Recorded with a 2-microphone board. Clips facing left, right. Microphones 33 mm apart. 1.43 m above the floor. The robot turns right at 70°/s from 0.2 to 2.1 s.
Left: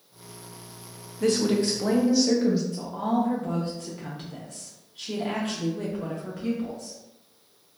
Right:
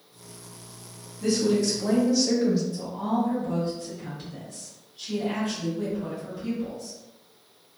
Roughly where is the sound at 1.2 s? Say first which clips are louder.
Even; left.